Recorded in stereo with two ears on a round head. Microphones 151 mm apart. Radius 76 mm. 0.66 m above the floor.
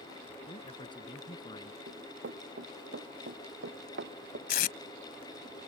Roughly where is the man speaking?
Left.